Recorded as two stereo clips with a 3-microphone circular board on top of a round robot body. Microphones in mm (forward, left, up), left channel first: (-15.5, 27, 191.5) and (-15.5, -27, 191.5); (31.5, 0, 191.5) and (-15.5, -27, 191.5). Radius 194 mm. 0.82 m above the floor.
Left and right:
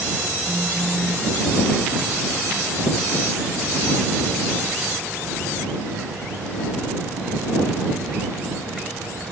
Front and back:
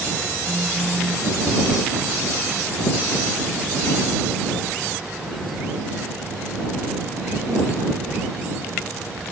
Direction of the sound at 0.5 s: 150° right.